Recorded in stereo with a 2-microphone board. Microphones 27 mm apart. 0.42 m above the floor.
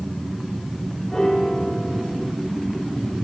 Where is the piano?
20° left (ahead or behind), 4.5 m.